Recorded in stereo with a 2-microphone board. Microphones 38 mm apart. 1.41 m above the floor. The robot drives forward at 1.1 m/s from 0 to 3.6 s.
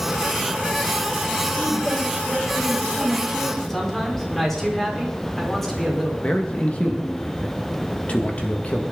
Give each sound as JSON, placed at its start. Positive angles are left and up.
{"t": 1.6, "sound": "a woman speaking", "side_deg": -5, "distance_m": 5.0}
{"t": 3.7, "sound": "a man speaking", "side_deg": 5, "distance_m": 4.5}
{"t": 6.2, "sound": "a man speaking", "side_deg": 35, "distance_m": 2.0}